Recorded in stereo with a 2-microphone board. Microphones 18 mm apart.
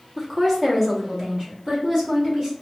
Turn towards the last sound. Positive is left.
turn(degrees=-50)  # may be behind; listen again after turning